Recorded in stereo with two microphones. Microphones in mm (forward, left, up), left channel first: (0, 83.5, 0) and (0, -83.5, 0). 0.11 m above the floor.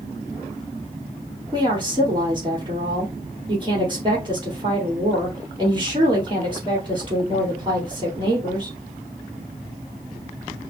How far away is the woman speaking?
About 3 m.